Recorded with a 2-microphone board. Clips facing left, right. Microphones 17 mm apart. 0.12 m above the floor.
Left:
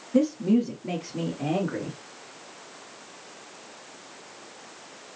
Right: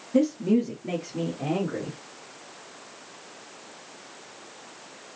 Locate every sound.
0.1 s a woman speaking: 15° right (ahead or behind), 1.5 m; by 2.0 s centre (ahead or behind), 2 m